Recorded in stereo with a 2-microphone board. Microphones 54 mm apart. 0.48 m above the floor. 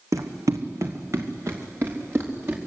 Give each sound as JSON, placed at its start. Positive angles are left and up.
{"t": 0.1, "sound": "running footsteps", "side_deg": -75, "distance_m": 1.8}